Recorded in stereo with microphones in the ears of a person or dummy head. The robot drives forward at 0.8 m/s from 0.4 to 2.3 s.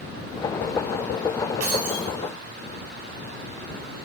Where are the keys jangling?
85° right, 5 m.